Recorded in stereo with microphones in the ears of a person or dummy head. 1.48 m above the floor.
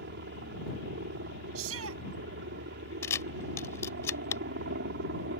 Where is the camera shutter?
15° left (ahead or behind).